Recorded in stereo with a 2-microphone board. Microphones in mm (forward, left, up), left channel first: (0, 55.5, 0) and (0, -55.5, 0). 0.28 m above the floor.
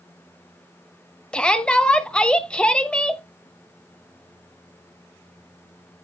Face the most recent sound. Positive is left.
turn(degrees=10)  # may be behind; listen again after turning